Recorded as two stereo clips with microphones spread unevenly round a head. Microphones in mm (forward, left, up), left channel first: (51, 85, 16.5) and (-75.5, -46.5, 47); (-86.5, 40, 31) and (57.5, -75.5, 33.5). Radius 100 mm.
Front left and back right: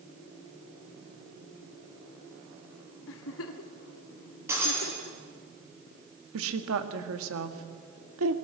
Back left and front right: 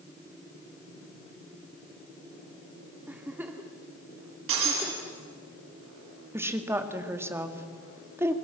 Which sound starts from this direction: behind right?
A woman speaking, at 6.3 s.